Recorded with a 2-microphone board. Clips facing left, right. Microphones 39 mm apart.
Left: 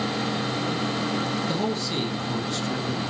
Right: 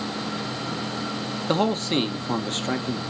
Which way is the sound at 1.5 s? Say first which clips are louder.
Right 4 dB; 45° right (ahead or behind).